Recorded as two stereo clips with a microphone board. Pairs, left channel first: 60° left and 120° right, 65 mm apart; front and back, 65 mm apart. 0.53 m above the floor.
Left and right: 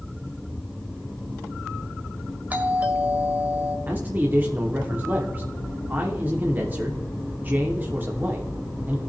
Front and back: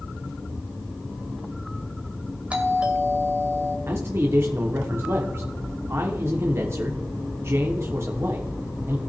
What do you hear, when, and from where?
2.5 s a doorbell: 140° right, 1.8 m
3.9 s a man speaking: 165° right, 1.0 m